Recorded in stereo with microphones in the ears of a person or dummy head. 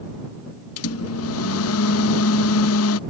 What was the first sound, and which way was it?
A microwave, 75° left (ahead or behind).